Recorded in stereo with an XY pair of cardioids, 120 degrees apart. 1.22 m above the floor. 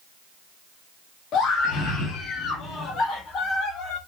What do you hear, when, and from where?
1.3 s a scream: 70° left, 1.9 m; by 4.0 s 65° left, 4.5 m